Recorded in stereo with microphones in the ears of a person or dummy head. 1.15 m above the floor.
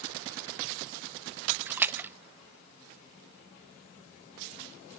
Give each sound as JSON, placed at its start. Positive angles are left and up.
{"t": 1.7, "sound": "a splash", "side_deg": -10, "distance_m": 0.6}